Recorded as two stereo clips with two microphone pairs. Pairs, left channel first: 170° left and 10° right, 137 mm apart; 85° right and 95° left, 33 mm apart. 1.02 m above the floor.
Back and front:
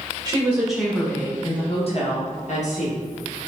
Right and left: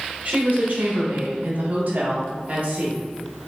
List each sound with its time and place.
0.2 s a woman speaking: 55° left, 0.7 m; by 3.0 s 145° left, 1.3 m